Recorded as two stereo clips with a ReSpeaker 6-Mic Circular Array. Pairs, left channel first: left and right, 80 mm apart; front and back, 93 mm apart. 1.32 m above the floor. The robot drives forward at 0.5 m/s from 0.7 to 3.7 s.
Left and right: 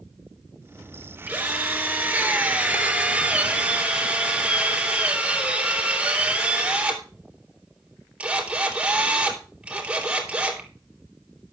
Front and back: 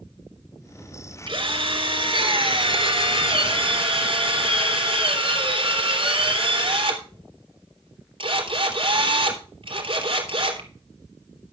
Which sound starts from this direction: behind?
A drill, at 1.3 s.